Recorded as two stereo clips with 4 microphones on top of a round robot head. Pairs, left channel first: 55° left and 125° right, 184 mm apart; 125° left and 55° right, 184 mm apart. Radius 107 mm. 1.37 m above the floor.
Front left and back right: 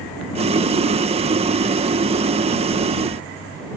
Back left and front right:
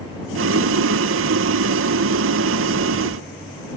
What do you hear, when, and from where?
0.3 s boiling: 65° right